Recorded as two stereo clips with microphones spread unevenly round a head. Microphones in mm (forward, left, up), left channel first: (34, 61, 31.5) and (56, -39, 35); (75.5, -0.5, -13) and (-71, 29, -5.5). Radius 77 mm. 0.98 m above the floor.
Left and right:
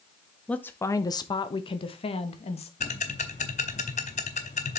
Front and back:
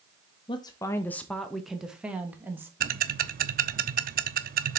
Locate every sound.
0.5 s a woman speaking: 30° left, 0.7 m; by 2.7 s 90° left, 1.6 m
2.8 s ticking: 150° left, 0.7 m